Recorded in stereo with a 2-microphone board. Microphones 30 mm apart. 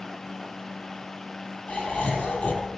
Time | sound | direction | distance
1.7 | laughter | 45° left (ahead or behind) | 5.5 m